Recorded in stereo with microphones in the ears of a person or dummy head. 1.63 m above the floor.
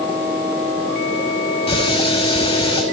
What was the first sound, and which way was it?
A running tap, 30° left (ahead or behind).